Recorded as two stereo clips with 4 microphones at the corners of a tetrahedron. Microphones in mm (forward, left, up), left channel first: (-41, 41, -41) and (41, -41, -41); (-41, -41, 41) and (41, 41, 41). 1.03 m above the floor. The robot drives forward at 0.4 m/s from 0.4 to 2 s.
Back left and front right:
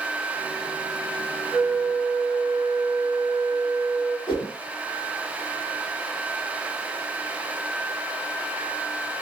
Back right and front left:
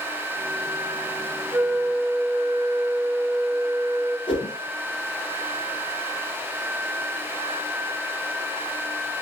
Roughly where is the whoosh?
Behind.